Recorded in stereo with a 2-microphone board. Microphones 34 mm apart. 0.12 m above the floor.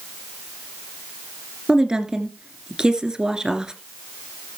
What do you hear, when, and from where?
1.7 s a woman speaking: 25° right (ahead or behind), 2.0 m